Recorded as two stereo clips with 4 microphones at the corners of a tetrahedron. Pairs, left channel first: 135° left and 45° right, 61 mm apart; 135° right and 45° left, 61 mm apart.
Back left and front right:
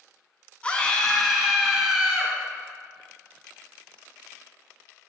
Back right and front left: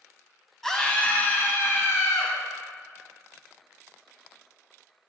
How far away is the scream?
About 1.0 m.